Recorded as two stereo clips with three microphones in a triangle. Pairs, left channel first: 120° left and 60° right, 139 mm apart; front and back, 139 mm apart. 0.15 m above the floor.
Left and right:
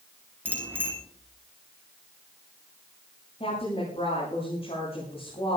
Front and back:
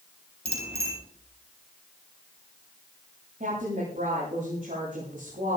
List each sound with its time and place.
0.5 s a bicycle bell: 135° right, 5.5 m
3.4 s a woman speaking: 165° left, 7.5 m